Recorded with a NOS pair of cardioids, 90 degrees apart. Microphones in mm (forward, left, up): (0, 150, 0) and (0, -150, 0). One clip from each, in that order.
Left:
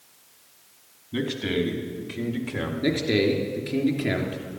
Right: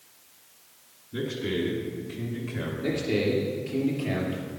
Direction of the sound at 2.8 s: 50° left.